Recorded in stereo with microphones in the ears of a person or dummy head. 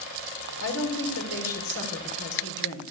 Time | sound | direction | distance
0.6 | a woman speaking | 85° left | 5 m